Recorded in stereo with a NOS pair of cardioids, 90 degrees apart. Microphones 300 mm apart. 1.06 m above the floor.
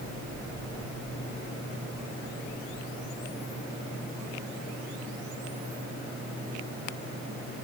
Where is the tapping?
I don't hear tapping.